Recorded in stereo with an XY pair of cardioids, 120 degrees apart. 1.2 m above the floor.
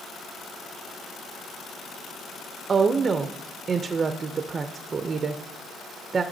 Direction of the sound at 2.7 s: 30° right.